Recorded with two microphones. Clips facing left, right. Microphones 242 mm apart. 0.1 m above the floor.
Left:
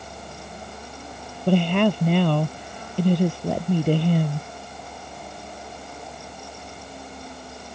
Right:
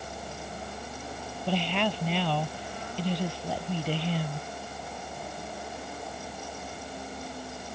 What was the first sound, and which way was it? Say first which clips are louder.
A woman speaking: left 10 dB; 55° left (ahead or behind).